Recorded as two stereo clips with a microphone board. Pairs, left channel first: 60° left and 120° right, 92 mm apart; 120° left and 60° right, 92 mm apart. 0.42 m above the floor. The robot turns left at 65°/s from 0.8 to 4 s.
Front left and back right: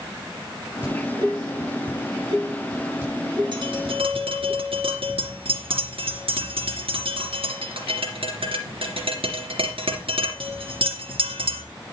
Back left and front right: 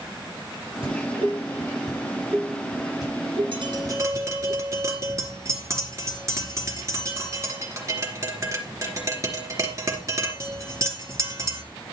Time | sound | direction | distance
0.8 | dishes clattering | 40° right | 7 m
3.5 | tapping | 85° right | 3 m